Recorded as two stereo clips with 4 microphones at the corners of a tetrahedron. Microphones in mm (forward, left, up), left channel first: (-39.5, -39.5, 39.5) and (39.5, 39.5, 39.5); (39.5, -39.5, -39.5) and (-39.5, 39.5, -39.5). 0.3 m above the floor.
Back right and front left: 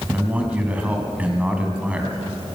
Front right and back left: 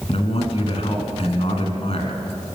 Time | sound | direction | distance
0.1 | a man speaking | 30° right | 3 m